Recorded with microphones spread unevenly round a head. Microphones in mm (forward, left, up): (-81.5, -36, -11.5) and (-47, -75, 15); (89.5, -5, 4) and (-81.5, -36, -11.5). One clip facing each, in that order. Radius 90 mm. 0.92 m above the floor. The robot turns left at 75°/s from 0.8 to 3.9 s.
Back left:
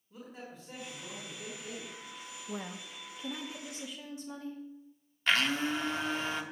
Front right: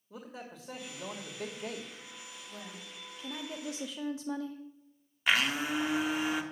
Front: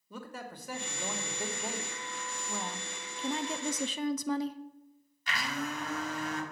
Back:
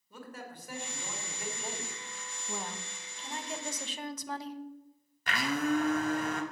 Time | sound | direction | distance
0.1 | a man speaking | straight ahead | 2 m
2.5 | a woman speaking | 110° left | 0.7 m
5.3 | a blender | 130° right | 1.4 m